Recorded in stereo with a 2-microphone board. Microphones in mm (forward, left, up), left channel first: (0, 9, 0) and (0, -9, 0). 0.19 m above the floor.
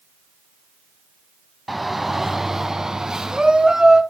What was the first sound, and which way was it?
A shout, centre (ahead or behind).